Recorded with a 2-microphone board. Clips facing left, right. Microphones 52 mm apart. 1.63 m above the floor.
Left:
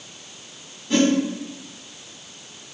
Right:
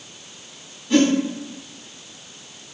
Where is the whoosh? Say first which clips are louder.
Right 2 dB; centre (ahead or behind), 2 m.